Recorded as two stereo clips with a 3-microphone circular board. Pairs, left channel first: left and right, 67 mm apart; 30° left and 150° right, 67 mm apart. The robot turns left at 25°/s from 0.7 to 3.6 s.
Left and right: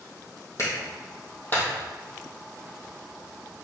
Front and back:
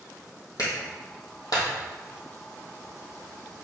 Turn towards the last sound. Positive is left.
turn(degrees=-25)